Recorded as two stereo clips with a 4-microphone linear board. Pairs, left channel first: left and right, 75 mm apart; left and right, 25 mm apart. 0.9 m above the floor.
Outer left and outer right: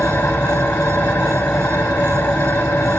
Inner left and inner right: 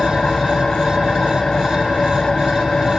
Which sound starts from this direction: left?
An engine running, at 0.0 s.